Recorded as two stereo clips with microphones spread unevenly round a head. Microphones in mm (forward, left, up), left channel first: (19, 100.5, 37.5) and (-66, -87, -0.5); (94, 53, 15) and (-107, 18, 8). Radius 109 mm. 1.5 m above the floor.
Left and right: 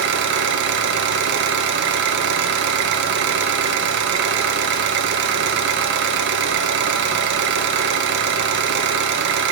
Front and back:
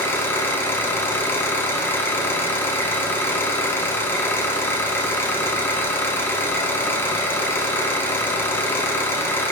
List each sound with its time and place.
0.0 s an engine running: 70° right, 1.0 m